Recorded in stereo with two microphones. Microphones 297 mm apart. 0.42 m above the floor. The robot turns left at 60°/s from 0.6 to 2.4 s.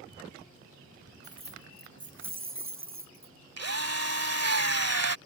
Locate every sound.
1.2 s keys jangling: 20° right; by 3.4 s 85° right
3.6 s a drill: 60° right (ahead or behind)